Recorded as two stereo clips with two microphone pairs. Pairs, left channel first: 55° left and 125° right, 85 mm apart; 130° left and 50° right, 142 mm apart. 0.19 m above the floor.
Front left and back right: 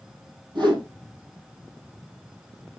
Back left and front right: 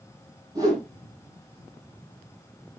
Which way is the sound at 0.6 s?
110° right.